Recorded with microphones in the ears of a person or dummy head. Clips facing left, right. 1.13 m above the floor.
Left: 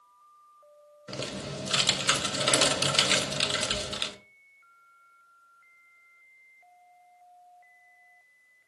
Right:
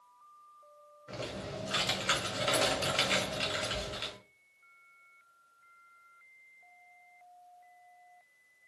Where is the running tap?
I don't hear a running tap.